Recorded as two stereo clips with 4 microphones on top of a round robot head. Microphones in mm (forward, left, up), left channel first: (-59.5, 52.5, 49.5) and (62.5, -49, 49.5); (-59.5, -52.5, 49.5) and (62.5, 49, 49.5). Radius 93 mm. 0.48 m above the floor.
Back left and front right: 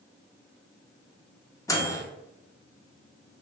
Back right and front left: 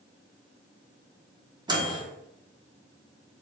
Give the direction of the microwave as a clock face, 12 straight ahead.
9 o'clock.